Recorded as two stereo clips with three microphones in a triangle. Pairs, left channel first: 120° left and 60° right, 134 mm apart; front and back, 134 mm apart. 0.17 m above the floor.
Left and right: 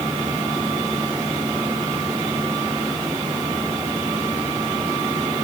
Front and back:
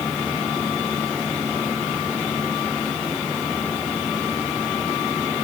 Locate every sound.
Only background noise.